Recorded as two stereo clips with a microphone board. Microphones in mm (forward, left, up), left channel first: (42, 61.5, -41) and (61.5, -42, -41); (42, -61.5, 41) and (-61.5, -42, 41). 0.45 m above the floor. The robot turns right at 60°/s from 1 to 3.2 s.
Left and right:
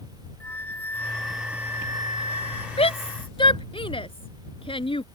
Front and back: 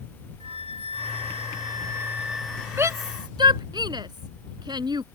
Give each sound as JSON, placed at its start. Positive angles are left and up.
{"t": 0.4, "sound": "a flute", "azimuth_deg": 175}
{"t": 2.8, "sound": "a shout", "azimuth_deg": 100}